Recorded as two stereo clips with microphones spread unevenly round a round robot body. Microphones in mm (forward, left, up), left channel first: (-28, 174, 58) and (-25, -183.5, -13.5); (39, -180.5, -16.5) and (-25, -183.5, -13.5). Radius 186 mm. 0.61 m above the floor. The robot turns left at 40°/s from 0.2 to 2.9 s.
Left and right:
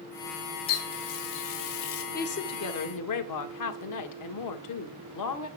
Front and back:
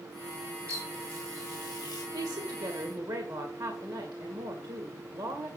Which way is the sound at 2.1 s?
160° left.